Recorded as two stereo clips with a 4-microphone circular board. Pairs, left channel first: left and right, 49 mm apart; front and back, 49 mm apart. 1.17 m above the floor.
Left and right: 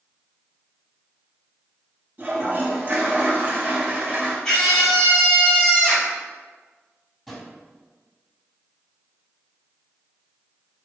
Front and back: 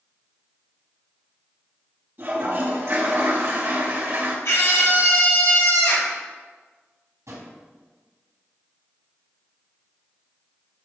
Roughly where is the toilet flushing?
Behind right.